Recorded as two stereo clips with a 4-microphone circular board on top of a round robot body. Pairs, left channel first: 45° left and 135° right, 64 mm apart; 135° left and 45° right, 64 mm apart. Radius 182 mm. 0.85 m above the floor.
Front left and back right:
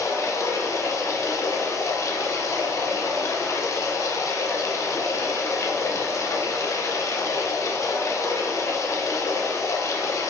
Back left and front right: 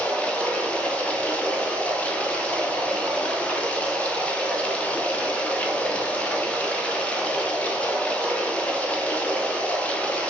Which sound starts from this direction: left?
Running water, at 0.0 s.